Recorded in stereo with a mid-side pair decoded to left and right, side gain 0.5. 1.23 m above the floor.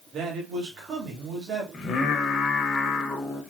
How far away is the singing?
About 1.1 m.